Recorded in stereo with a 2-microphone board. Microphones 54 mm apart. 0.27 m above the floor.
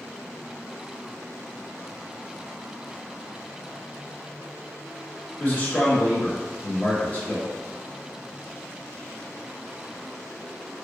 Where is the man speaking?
30° left (ahead or behind), 1.0 m.